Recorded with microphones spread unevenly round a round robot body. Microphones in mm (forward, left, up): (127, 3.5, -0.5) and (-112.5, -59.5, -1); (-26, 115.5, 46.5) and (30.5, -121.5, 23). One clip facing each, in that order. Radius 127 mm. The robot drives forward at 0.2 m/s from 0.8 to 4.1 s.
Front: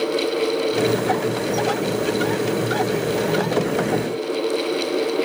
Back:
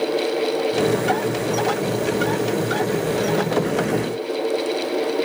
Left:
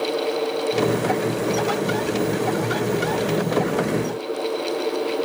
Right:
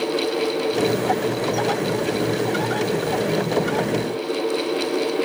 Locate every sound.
Only background noise.